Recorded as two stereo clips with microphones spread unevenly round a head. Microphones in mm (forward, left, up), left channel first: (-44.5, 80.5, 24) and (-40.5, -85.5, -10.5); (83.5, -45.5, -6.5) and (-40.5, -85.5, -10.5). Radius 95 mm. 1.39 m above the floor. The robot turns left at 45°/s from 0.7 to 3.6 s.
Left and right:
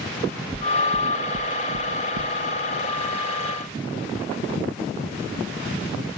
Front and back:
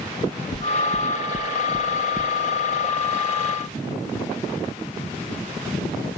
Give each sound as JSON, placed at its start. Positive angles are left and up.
{"t": 0.5, "sound": "knocking", "azimuth_deg": -10, "distance_m": 0.8}